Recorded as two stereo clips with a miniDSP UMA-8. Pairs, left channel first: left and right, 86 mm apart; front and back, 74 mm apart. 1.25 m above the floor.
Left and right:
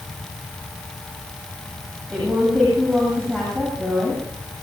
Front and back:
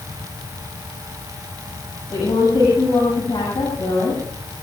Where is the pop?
I don't hear a pop.